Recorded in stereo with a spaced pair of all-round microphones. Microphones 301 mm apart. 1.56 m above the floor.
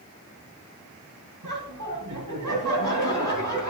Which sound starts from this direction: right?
Laughter, at 1.4 s.